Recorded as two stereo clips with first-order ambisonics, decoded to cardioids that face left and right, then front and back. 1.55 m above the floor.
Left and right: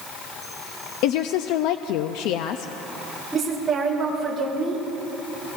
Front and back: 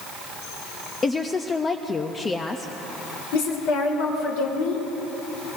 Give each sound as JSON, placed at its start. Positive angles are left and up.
{"t": 1.0, "sound": "a woman speaking", "azimuth_deg": 75, "distance_m": 0.5}
{"t": 3.3, "sound": "a woman speaking", "azimuth_deg": -10, "distance_m": 4.0}